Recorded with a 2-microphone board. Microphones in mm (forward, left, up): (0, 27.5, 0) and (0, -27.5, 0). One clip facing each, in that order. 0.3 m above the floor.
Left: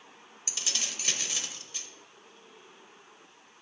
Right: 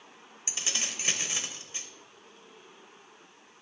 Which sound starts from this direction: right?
Keys jangling, at 0.5 s.